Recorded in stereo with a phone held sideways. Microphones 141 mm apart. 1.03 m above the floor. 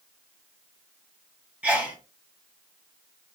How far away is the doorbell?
I don't hear a doorbell.